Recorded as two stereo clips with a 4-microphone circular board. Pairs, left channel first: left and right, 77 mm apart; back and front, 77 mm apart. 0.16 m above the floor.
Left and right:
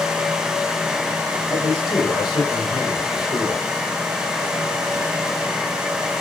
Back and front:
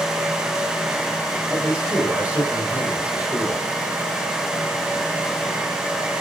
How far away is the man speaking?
About 6 m.